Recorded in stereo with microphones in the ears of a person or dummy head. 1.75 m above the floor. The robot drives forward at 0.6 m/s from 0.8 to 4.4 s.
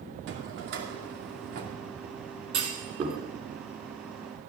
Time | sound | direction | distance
0.3 | a drawer | 65° right (ahead or behind) | 2.5 m
2.5 | a clunk | 35° right (ahead or behind) | 3 m